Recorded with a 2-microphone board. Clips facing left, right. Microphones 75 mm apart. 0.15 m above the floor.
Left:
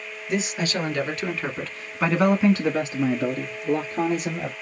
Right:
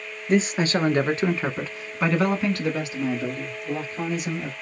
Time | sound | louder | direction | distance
0.3 | a man speaking | right 5 dB | 40° right (ahead or behind) | 1.7 m